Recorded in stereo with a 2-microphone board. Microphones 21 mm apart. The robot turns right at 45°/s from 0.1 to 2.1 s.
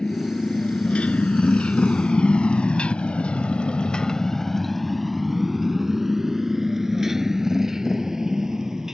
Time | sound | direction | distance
0.0 | a motorcycle | 45° left (ahead or behind) | ?